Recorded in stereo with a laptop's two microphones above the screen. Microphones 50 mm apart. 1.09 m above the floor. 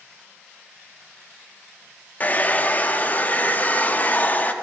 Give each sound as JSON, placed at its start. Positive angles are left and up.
{"t": 2.2, "sound": "a hair dryer", "side_deg": 35, "distance_m": 0.6}